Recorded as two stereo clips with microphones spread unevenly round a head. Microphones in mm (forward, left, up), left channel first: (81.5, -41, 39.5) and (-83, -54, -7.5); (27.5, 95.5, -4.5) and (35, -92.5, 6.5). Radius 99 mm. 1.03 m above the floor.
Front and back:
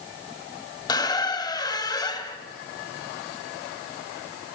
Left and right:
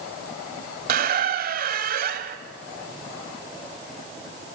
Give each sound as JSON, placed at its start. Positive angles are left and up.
{"t": 0.9, "sound": "a squeak", "azimuth_deg": -55, "distance_m": 1.7}